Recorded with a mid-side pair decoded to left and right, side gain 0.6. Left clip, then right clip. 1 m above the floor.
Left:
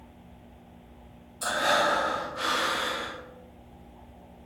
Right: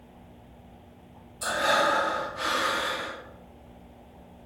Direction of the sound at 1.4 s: 15° left.